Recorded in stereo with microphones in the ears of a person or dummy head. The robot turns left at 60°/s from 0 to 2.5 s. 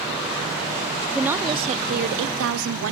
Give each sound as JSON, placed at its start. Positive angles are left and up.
{"t": 1.1, "sound": "a woman speaking", "azimuth_deg": -5, "distance_m": 0.9}